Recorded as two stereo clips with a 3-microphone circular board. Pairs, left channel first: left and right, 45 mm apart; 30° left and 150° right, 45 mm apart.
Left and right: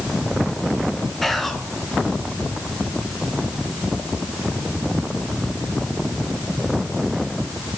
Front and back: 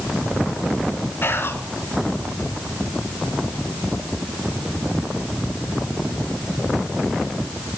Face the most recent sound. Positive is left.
turn(degrees=5)